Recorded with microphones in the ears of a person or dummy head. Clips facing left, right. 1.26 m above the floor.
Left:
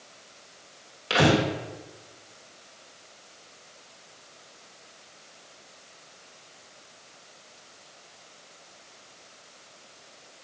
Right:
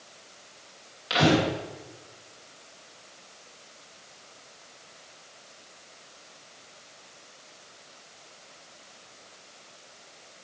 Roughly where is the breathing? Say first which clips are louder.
Left 1 dB; left.